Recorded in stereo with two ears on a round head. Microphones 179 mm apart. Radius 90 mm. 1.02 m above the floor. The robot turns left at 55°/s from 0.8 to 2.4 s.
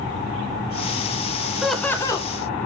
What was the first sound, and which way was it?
Laughter, 175° right.